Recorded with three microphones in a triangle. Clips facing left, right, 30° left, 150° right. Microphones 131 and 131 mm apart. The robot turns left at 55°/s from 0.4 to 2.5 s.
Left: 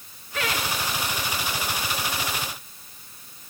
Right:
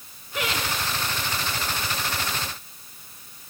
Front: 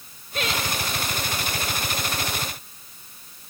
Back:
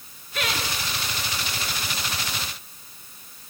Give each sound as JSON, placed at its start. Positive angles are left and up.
{"t": 0.3, "sound": "laughter", "azimuth_deg": -20, "distance_m": 4.0}